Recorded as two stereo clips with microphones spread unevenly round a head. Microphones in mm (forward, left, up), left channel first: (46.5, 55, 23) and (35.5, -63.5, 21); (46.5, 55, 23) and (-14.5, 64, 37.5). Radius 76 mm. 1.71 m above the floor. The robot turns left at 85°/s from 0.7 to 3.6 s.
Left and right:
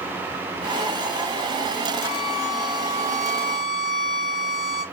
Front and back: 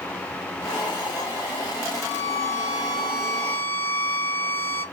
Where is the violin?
165° right, 2.5 m; by 4.8 s 60° left, 2.5 m.